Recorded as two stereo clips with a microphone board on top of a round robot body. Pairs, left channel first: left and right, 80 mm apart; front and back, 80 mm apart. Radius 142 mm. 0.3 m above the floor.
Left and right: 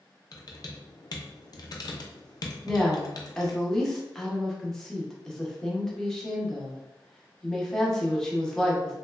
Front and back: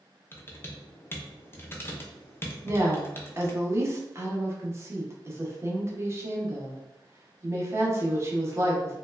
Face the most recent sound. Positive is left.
turn(degrees=170)